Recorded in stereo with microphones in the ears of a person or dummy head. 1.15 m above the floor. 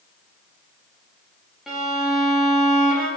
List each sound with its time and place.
1.7 s a violin: 5° right (ahead or behind), 0.6 m